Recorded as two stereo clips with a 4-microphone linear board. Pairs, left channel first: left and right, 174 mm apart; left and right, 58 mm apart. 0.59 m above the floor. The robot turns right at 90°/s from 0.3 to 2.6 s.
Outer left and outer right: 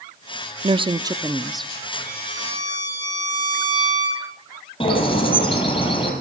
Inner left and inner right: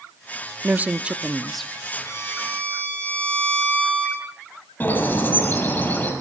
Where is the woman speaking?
85° right, 0.6 m; by 1.7 s 15° left, 0.6 m.